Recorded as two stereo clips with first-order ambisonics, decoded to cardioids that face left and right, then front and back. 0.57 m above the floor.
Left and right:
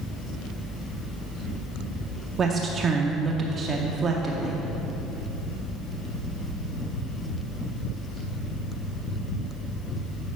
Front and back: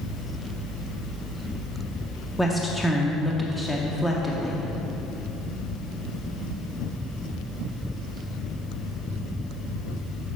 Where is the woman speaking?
80° right, 0.6 m.